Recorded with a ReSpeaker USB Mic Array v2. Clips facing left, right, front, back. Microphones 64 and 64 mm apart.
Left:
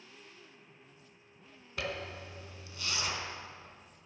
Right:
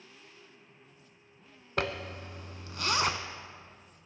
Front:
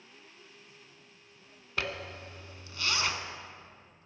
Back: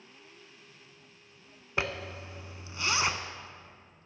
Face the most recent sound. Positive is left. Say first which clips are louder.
# right 5 dB, back 2 dB
turn(degrees=-110)